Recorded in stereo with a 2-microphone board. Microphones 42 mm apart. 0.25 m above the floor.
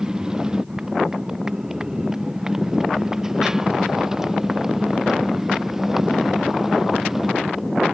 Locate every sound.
0.0 s a motorcycle: 20° right (ahead or behind); by 7.9 s 10° right (ahead or behind)